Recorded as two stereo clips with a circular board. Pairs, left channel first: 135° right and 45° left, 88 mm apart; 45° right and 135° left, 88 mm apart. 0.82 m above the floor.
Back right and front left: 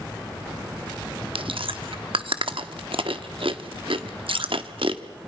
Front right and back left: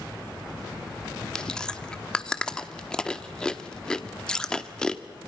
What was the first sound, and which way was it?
Chewing, 35° left.